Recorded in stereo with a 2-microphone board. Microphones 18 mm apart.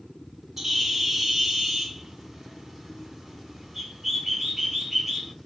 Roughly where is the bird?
Centre.